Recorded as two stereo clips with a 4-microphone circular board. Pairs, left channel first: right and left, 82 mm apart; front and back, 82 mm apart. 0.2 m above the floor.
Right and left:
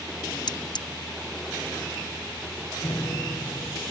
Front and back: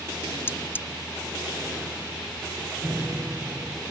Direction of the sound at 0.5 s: 65° right.